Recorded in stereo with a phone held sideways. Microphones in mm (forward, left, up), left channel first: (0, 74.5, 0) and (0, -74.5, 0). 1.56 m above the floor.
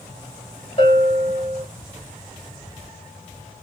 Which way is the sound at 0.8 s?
45° left (ahead or behind).